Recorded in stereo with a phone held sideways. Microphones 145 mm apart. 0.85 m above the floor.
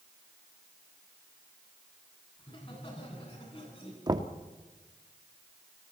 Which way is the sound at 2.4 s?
40° left (ahead or behind).